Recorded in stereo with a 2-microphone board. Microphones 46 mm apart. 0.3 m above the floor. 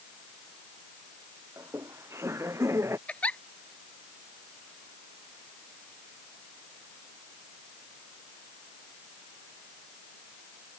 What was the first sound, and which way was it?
Laughter, 85° right.